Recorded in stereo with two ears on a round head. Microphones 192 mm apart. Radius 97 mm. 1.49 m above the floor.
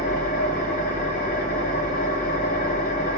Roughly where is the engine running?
Left.